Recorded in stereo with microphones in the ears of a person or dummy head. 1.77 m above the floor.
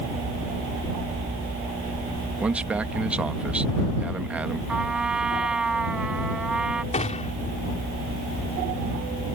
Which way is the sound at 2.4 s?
10° right (ahead or behind).